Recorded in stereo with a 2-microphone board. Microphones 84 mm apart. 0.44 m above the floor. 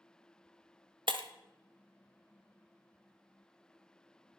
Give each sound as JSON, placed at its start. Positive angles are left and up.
{"t": 1.1, "sound": "breaking glass", "side_deg": -75, "distance_m": 0.8}